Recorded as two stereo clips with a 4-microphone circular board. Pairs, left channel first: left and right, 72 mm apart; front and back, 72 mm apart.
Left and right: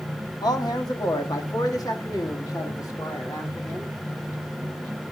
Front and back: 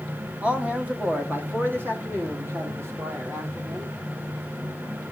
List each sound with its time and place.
0.4 s a man speaking: 105° left, 1.6 m; by 4.0 s 130° left, 3.5 m